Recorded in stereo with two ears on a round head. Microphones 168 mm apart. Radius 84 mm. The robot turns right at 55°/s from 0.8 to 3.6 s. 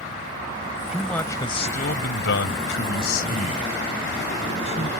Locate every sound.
0.9 s a man speaking: 5° right; by 4.9 s 145° left